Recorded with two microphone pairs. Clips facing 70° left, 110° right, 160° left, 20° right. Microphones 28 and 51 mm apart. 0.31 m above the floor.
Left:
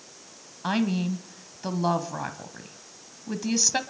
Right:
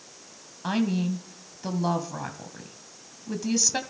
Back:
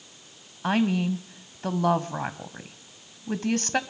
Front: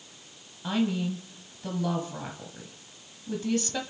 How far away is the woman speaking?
About 1.7 m.